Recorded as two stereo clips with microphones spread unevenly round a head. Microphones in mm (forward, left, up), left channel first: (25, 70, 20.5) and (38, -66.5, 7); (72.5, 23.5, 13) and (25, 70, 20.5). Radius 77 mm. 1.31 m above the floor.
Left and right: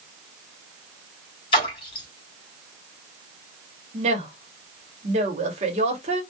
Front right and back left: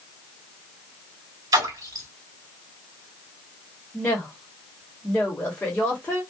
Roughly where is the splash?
Behind left.